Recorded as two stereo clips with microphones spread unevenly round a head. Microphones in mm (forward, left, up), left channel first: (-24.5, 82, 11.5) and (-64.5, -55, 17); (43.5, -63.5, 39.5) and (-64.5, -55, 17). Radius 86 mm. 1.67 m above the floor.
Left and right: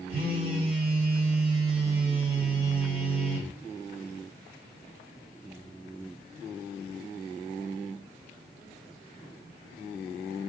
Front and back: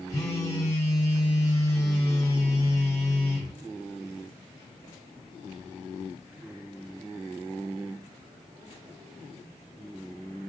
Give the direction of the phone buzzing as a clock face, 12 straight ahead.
2 o'clock.